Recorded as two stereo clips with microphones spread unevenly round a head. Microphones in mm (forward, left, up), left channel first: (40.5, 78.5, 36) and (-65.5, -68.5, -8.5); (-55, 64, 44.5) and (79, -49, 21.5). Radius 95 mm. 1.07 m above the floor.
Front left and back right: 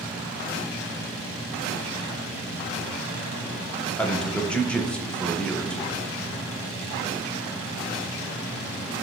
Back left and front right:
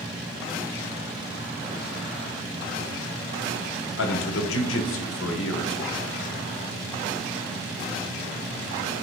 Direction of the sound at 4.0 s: 140° left.